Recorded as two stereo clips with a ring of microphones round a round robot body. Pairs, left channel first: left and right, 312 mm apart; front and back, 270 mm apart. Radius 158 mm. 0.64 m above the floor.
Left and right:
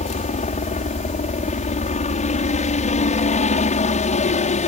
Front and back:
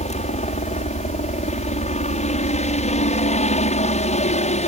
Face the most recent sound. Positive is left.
turn(degrees=40)